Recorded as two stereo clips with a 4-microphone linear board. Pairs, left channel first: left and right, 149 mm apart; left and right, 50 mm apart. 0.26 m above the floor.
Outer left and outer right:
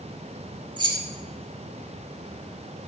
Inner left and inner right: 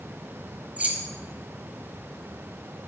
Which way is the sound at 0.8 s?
30° right (ahead or behind).